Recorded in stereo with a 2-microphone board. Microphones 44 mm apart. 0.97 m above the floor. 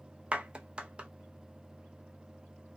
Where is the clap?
30° right (ahead or behind), 0.5 m.